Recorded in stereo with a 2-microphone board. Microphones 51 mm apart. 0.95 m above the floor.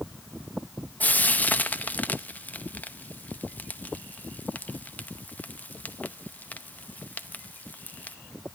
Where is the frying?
30° left (ahead or behind), 0.8 m.